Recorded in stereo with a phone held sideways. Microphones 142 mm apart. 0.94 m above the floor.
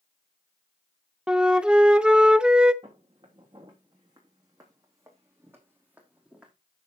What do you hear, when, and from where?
1.3 s a flute: 5° right (ahead or behind), 0.5 m
2.8 s footsteps: 40° right (ahead or behind), 4 m; by 6.5 s 5° right (ahead or behind), 3 m